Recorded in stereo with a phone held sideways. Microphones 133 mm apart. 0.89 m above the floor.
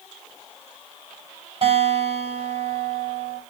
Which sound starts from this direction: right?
A guitar, at 1.6 s.